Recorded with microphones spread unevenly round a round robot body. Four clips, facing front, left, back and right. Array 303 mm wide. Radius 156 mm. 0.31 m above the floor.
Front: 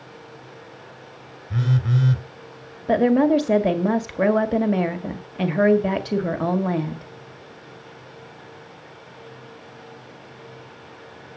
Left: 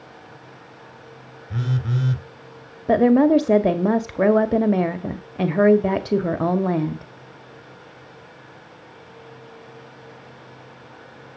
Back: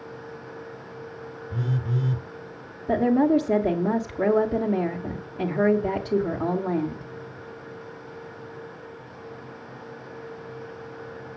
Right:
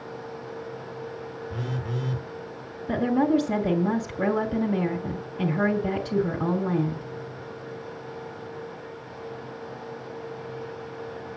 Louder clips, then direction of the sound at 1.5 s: Left 8 dB, front 6 dB; 30° left.